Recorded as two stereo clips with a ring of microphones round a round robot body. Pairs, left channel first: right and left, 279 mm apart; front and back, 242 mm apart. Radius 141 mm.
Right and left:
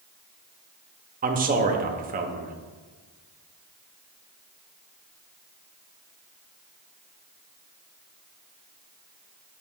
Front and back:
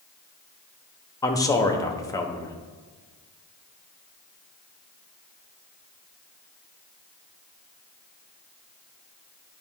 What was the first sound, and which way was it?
A man speaking, 65° left.